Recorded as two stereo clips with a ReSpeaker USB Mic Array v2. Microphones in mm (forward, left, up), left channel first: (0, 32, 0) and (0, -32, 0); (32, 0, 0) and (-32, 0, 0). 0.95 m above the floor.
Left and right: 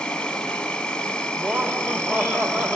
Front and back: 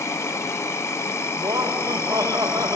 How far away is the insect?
About 1.1 m.